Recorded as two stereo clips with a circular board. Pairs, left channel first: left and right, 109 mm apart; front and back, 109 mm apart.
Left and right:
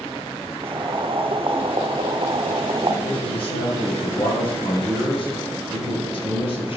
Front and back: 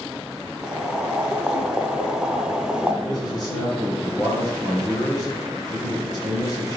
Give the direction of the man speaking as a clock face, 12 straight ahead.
10 o'clock.